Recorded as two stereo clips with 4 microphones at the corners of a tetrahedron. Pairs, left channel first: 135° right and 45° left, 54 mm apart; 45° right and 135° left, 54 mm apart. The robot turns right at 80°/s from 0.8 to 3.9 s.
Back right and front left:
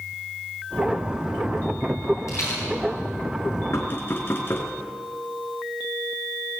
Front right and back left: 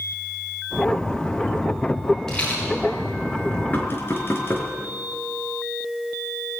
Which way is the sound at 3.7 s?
105° right.